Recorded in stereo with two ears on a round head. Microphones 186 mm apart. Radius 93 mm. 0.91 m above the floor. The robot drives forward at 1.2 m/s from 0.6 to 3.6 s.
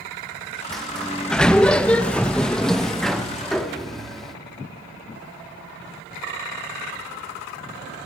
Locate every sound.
0.7 s a sliding door: centre (ahead or behind), 1.6 m